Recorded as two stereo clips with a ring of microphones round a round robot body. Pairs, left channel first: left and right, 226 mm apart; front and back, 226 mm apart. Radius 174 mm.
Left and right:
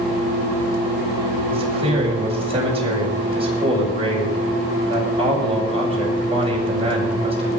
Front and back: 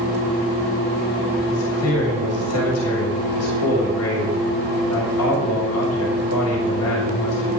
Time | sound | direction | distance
1.5 | a man speaking | 25° right | 7 m